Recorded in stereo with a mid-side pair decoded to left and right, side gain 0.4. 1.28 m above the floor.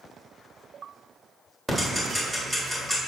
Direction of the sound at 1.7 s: 15° right.